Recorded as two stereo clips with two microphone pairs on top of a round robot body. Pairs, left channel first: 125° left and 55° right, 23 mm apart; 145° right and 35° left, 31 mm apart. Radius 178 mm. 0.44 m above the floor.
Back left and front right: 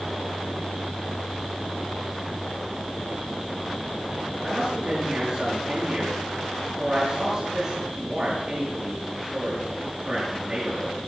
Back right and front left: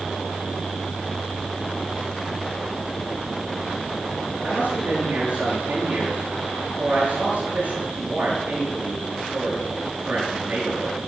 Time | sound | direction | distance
4.4 | a man speaking | 5° right | 7.5 m